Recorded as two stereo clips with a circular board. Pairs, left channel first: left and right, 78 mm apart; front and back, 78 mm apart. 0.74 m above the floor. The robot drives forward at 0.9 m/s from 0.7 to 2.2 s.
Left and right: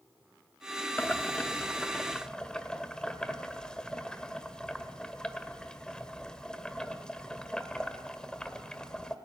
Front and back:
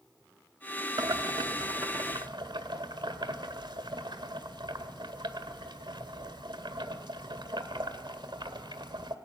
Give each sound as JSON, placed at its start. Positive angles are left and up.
{"t": 1.0, "sound": "boiling", "azimuth_deg": 155, "distance_m": 0.8}